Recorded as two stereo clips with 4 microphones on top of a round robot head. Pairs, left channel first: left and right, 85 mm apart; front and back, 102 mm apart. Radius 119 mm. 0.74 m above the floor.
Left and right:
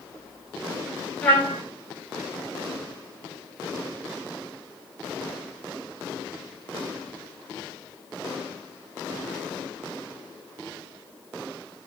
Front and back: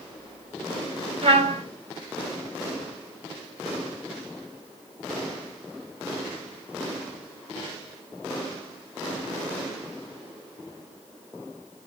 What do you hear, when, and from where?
1.2 s a trumpet: 165° left, 4.5 m